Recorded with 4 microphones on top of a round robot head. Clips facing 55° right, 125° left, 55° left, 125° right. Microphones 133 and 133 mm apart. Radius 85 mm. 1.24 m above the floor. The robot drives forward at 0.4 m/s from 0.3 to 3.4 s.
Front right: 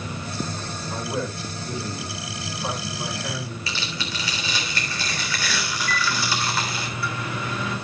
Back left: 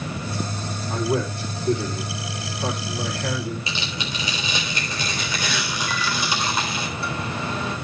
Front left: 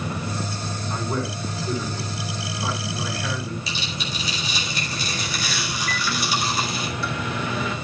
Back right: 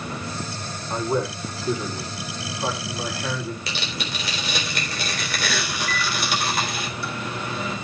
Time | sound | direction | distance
0.9 | a man speaking | 165° left | 4.5 m
3.7 | tearing paper | 160° right | 3.5 m
5.9 | a microwave | 60° left | 3 m